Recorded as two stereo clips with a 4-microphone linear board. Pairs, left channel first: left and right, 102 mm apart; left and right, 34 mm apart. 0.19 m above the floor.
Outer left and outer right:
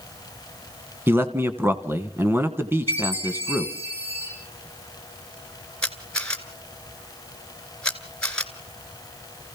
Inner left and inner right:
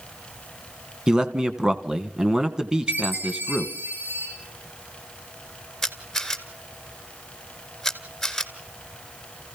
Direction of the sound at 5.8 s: 10° left (ahead or behind).